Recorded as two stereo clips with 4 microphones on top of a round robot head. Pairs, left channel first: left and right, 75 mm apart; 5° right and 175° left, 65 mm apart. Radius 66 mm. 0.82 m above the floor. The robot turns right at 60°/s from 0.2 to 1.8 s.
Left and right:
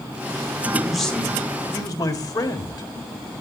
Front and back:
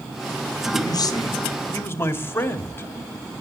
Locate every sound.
0.7 s a man speaking: 15° right, 2 m; by 2.9 s 50° left, 2 m